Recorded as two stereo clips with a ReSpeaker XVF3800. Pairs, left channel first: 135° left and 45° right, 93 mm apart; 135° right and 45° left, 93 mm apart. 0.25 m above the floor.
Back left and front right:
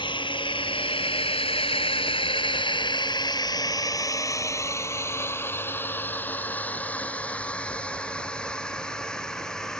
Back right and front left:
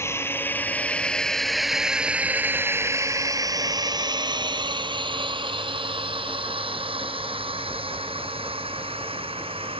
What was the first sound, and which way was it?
A drone, 165° left.